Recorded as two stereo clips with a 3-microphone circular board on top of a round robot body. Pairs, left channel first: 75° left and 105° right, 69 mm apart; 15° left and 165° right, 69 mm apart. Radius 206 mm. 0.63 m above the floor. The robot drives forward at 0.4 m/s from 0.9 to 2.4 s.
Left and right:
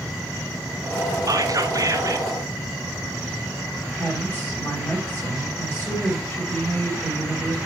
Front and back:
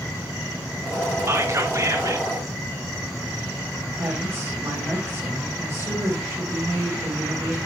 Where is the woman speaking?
140° left, 4 m.